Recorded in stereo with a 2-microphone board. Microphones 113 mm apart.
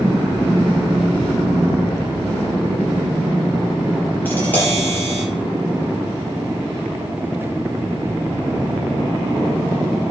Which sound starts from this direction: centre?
Tapping, at 4.2 s.